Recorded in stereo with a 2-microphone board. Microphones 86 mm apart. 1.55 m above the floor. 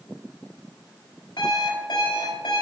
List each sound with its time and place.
1.4 s an alarm clock: 80° left, 4.5 m